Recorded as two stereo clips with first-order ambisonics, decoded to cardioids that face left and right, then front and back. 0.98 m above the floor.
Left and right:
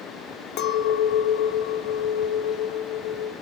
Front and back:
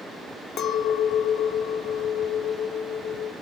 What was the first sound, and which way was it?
A clink, 50° left.